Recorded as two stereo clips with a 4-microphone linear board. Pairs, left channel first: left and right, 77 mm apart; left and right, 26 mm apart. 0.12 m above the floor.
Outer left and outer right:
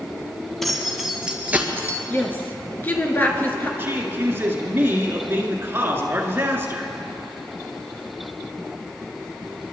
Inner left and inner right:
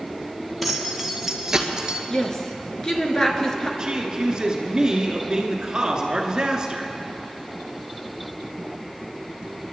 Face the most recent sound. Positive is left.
turn(degrees=-30)  # may be behind; listen again after turning